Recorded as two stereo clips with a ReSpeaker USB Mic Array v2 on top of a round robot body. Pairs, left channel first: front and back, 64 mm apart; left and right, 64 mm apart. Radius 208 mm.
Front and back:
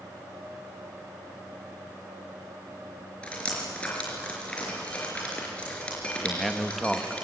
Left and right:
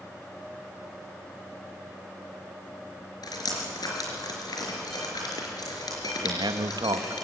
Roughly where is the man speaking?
Right.